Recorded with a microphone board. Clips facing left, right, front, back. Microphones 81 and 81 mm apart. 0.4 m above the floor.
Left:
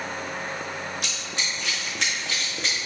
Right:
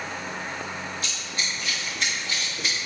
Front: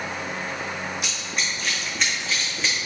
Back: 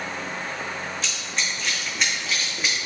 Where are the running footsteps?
75° left, 1.9 m; by 2.8 s 100° left, 2.5 m.